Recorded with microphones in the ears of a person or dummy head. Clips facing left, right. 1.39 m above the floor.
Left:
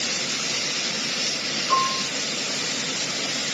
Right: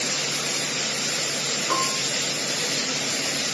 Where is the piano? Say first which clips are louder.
Left 3 dB; 45° right (ahead or behind), 0.6 m.